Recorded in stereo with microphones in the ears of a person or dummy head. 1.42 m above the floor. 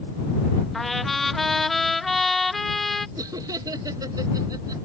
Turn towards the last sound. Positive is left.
turn(degrees=-25)  # may be behind; listen again after turning